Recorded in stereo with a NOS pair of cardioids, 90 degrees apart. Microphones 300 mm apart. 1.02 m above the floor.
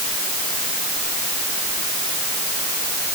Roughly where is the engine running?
No engine running in this recording.